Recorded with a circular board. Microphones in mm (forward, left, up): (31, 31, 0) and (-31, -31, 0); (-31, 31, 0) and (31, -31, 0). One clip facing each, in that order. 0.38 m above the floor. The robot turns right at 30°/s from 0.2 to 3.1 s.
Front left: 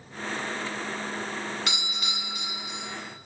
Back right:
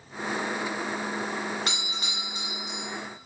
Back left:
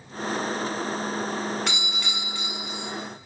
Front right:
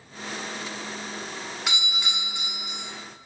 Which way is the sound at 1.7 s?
120° right.